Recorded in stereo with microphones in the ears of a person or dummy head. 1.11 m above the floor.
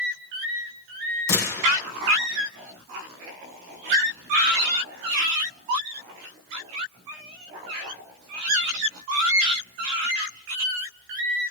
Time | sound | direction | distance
1.3 | a gunshot | 60° left (ahead or behind) | 2.5 m